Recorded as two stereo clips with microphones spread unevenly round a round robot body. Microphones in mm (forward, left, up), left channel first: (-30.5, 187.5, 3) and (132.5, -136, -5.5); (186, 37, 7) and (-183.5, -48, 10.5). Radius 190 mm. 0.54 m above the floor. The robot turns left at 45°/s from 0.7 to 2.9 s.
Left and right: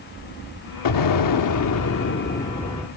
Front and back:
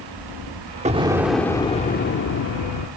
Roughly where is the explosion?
Behind left.